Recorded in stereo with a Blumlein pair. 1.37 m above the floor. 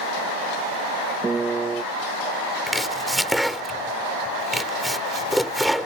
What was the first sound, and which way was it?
A piano, 15° right.